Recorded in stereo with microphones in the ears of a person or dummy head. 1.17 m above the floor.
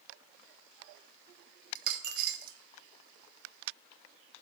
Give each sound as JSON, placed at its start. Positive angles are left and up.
{"t": 1.8, "sound": "a dropped coin", "side_deg": -55, "distance_m": 1.0}